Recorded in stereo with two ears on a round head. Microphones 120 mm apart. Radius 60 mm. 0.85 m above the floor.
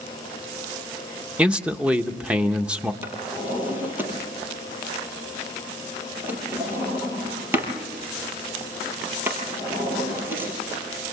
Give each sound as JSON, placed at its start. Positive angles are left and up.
{"t": 1.4, "sound": "a man speaking", "side_deg": -10, "distance_m": 0.9}
{"t": 3.0, "sound": "a drawer", "side_deg": -15, "distance_m": 5.0}